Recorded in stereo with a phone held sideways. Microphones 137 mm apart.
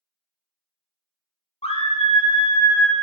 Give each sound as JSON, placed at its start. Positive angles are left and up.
{"t": 1.6, "sound": "a scream", "side_deg": 45, "distance_m": 0.7}